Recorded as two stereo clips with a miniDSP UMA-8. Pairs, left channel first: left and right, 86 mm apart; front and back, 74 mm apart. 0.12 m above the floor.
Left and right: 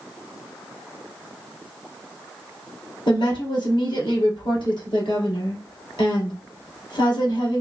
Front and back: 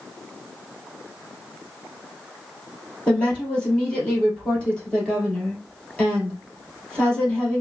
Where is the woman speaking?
75° left, 2.5 m.